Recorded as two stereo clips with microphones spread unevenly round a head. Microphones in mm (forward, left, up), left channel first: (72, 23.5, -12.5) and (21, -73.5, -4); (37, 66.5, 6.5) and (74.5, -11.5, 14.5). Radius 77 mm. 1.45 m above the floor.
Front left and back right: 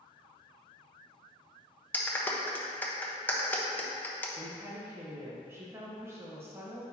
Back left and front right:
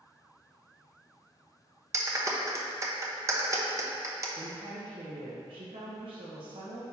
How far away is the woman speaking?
About 1.2 m.